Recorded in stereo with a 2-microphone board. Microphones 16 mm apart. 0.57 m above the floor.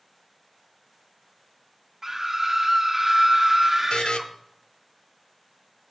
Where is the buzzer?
85° left, 0.5 m.